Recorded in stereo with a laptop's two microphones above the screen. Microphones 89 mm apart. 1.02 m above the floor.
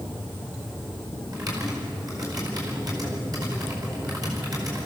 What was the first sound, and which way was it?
Typing on a keyboard, 45° right (ahead or behind).